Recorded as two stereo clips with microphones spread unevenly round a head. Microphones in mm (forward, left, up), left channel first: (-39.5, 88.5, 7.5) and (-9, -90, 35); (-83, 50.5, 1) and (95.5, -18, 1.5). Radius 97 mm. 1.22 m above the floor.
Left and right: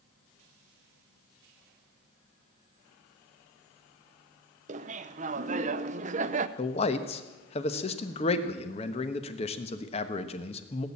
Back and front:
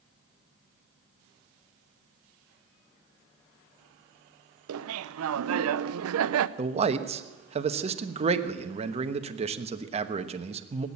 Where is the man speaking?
40° left, 1.1 m.